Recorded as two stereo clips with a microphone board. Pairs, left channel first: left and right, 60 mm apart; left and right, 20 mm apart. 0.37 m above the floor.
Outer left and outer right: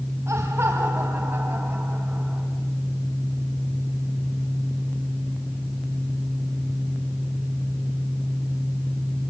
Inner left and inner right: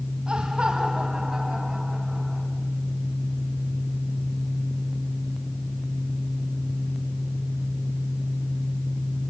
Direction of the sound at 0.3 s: 50° right (ahead or behind).